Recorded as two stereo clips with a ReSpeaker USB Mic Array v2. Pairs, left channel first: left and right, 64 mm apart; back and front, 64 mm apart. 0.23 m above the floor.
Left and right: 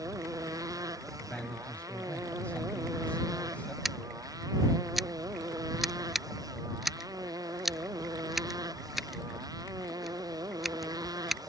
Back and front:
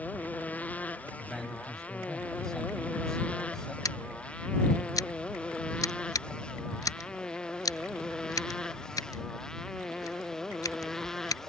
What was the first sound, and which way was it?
A motorcycle, 115° right.